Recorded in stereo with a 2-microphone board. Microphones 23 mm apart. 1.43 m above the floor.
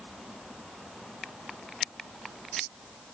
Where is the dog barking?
No dog barking in this recording.